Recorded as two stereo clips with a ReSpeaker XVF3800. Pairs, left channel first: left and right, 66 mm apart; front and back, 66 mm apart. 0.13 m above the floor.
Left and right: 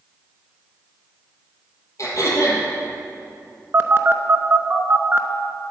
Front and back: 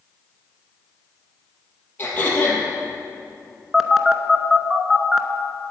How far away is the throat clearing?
About 3 m.